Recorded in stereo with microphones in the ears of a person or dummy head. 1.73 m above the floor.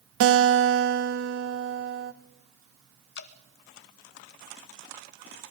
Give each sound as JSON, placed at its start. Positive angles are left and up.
{"t": 0.2, "sound": "a guitar", "side_deg": -70, "distance_m": 1.5}
{"t": 3.1, "sound": "dripping", "side_deg": 60, "distance_m": 1.1}